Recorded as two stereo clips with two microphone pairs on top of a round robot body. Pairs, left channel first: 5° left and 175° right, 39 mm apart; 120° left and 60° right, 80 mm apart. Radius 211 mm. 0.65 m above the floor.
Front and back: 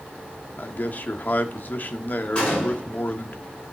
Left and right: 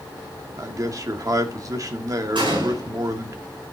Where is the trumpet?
I don't hear a trumpet.